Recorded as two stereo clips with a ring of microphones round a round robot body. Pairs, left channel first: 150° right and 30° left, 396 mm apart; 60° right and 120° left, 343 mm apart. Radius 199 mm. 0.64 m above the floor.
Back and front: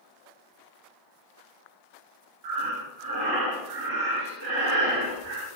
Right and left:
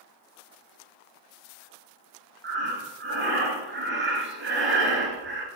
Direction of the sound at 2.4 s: 65° left.